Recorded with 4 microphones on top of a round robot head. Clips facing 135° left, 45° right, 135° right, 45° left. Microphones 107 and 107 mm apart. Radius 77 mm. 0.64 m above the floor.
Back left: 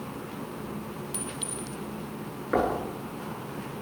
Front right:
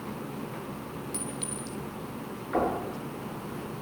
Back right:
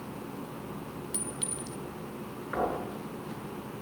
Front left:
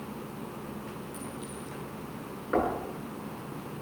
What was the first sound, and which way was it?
A clink, 145° right.